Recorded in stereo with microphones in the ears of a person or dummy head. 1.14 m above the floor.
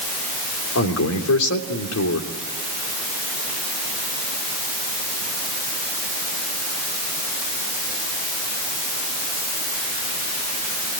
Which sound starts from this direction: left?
A man speaking, at 0.8 s.